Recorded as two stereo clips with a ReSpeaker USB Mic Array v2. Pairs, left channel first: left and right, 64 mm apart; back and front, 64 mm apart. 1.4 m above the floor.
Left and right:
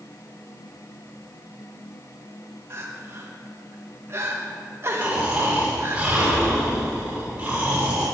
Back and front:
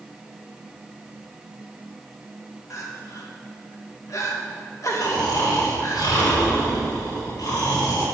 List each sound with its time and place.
2.7 s crying: 140° right, 1.9 m
5.0 s snoring: 165° right, 5.5 m